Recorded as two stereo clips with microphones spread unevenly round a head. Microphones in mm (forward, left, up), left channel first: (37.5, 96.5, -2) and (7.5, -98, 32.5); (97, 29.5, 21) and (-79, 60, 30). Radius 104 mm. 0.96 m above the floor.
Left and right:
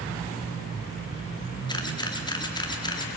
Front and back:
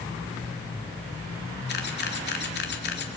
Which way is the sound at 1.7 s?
15° left.